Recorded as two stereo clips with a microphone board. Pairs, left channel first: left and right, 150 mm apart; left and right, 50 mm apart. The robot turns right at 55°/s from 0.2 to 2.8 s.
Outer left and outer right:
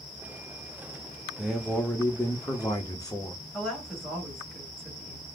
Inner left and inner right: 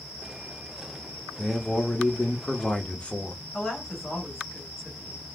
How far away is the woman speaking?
About 1.9 m.